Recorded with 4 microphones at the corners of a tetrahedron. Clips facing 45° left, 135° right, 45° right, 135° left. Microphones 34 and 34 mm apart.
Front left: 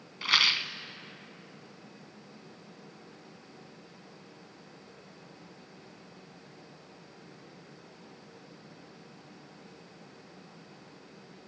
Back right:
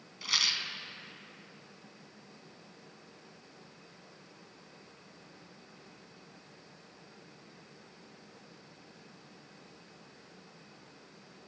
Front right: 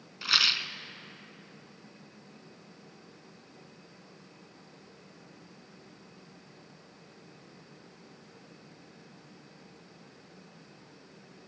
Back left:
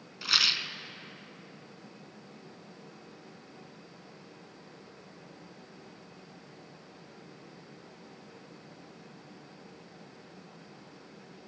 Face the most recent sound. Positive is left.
turn(degrees=30)